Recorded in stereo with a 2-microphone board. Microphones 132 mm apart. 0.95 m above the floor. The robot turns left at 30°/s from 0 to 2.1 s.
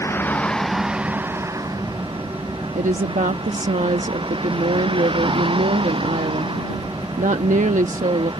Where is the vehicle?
20° left; by 8.4 s 40° right.